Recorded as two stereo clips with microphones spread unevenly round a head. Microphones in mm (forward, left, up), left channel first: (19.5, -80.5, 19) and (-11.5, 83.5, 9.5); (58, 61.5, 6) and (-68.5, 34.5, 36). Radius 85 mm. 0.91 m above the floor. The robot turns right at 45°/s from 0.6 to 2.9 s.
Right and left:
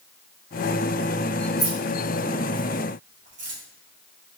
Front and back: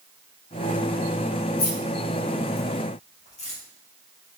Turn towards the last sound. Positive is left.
turn(degrees=50)